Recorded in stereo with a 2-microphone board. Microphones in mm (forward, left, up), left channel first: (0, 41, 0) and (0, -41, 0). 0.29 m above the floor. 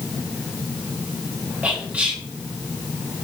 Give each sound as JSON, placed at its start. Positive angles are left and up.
{"t": 1.6, "sound": "whispering", "side_deg": -20, "distance_m": 1.5}